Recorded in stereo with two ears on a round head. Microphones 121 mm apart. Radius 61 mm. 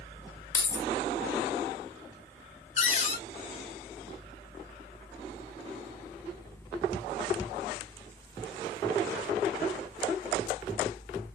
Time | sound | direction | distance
0.5 | keys jangling | 20° left (ahead or behind) | 1.0 m
2.8 | a cupboard door | 50° left (ahead or behind) | 1.1 m